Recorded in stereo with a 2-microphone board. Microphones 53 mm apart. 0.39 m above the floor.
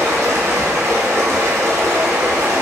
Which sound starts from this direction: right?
Running water, at 0.0 s.